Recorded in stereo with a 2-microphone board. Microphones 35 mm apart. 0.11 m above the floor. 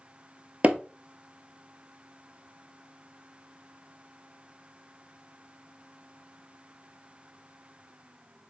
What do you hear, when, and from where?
0.6 s hammering: 45° right (ahead or behind), 0.8 m